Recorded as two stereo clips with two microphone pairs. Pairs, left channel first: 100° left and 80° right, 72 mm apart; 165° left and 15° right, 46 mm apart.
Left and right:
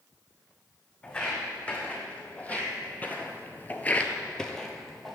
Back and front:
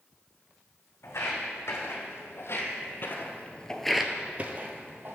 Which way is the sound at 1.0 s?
175° left.